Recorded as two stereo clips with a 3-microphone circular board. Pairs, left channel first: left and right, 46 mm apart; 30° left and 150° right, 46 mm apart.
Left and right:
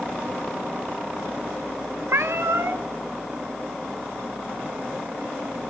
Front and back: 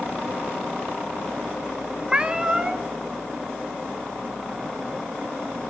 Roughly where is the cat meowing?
Right.